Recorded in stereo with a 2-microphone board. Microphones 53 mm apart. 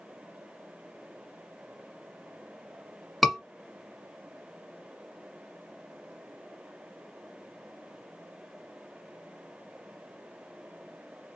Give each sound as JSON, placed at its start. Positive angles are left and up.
{"t": 3.2, "sound": "a scream", "side_deg": 0, "distance_m": 1.3}